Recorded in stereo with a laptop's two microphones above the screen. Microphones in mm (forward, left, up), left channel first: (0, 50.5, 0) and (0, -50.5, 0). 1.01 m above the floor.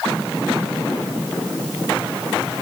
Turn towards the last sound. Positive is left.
No sound to turn to.